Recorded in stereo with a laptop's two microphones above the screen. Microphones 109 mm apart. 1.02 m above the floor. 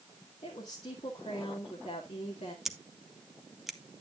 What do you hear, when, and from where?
0.4 s a woman speaking: 75° left (ahead or behind), 2 m
2.6 s scissors: centre (ahead or behind), 0.7 m